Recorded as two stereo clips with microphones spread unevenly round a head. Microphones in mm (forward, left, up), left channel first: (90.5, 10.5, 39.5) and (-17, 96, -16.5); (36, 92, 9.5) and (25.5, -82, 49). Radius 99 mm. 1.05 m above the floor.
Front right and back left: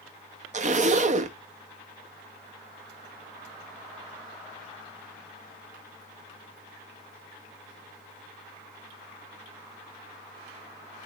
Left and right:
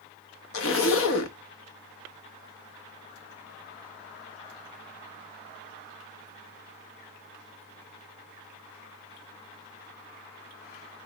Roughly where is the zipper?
Left.